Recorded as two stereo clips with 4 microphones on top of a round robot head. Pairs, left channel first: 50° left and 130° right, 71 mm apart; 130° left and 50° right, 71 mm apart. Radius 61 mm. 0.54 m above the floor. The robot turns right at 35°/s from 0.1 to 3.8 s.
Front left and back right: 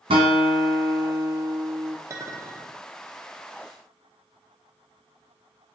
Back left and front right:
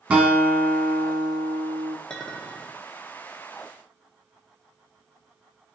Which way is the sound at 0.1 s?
125° right.